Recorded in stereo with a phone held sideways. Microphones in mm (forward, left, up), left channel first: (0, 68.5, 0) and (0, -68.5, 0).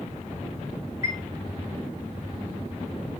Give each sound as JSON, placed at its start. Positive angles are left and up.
{"t": 1.0, "sound": "a chime", "side_deg": -20, "distance_m": 2.5}